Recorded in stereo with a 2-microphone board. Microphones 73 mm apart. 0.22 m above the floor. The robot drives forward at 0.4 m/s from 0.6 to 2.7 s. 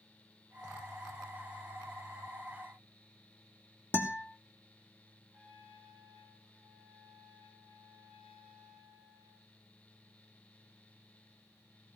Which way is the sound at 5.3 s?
20° right (ahead or behind).